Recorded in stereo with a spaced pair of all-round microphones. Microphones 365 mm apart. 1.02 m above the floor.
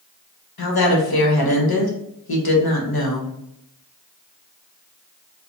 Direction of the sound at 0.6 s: 80° left.